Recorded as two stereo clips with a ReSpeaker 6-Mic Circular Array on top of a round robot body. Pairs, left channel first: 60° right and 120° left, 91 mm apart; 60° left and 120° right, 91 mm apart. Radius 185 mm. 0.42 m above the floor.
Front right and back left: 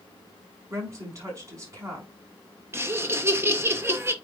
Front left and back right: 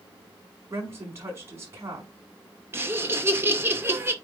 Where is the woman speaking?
Straight behind, 5 m.